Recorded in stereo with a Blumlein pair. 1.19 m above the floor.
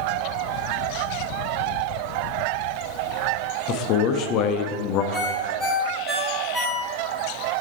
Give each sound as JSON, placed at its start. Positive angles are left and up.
{"t": 3.7, "sound": "a man speaking", "azimuth_deg": 35, "distance_m": 0.6}
{"t": 5.1, "sound": "a ringtone", "azimuth_deg": 0, "distance_m": 1.8}